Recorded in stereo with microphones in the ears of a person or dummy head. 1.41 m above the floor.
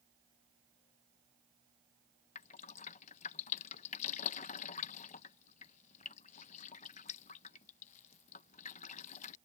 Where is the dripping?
40° left (ahead or behind).